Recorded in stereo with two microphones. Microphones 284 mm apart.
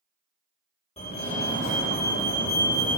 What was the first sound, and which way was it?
A fire alarm, 20° left (ahead or behind).